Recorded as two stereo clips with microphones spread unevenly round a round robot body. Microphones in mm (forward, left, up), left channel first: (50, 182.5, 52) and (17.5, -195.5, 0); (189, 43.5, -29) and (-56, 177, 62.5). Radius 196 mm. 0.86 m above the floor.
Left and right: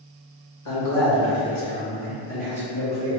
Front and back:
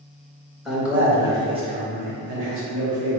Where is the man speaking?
45° left, 1.3 m; by 3.2 s 175° right, 1.0 m.